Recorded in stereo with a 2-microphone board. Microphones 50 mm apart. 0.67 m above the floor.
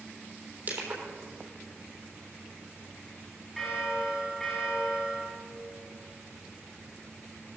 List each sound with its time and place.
0.7 s crushing: 40° right (ahead or behind), 3.5 m
3.6 s a bell: 5° left (ahead or behind), 5.5 m